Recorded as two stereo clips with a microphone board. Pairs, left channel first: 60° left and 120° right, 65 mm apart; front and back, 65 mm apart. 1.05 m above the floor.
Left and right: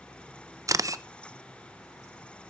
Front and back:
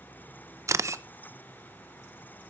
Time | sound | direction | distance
0.7 | a camera shutter | 145° right | 0.6 m